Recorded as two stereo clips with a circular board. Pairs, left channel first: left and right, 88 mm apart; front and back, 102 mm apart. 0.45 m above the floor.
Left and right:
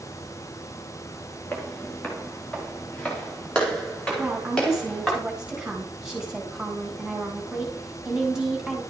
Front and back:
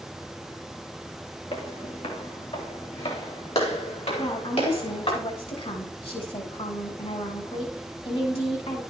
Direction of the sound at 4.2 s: 10° right.